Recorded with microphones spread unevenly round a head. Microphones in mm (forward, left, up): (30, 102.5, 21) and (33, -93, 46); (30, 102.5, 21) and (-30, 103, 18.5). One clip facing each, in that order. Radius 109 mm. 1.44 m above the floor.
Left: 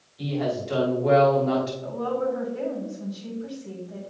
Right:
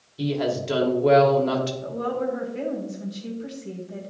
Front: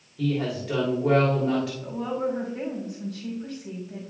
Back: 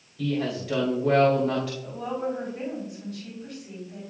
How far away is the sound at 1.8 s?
About 2 m.